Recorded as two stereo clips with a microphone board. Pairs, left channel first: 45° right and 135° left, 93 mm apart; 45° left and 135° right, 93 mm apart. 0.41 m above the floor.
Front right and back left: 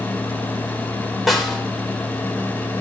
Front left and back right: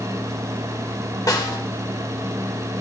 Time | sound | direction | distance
1.3 | a snare drum | 45° left | 1.4 m